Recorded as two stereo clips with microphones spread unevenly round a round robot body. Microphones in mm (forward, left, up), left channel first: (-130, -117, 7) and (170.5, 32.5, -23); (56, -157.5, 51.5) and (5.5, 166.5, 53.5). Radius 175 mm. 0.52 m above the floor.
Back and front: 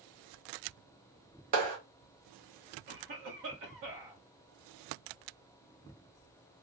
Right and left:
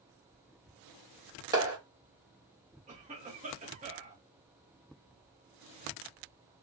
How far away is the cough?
About 1.5 m.